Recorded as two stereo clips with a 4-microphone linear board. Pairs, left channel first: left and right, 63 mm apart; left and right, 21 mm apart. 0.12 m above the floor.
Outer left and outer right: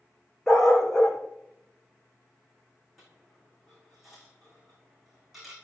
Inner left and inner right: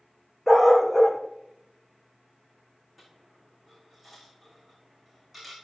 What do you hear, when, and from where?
0.5 s a dog barking: 5° left (ahead or behind), 2 m
3.0 s a dropped coin: 5° right (ahead or behind), 5 m